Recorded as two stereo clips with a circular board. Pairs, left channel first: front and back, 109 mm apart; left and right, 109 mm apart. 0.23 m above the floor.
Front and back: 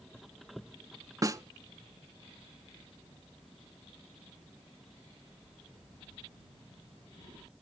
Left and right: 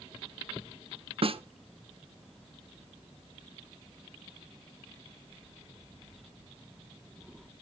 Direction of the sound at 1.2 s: 120° right.